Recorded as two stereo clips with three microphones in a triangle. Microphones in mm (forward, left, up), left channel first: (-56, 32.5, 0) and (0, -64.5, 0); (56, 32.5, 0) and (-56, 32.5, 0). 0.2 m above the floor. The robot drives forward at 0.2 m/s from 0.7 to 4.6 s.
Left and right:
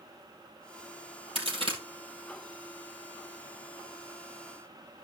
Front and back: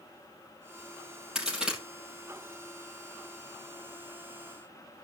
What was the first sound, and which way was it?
A crack, 95° right.